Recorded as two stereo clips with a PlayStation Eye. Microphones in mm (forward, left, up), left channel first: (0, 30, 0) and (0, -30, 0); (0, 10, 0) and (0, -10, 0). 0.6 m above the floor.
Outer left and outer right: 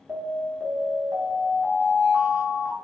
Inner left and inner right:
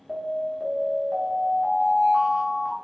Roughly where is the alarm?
Right.